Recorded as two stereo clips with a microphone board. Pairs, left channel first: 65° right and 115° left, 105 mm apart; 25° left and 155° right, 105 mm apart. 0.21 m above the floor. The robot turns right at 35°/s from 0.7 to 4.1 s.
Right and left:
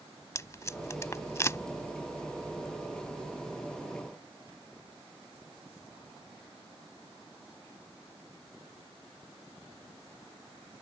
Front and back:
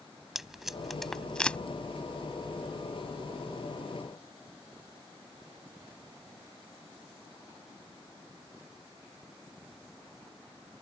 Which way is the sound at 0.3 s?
75° right.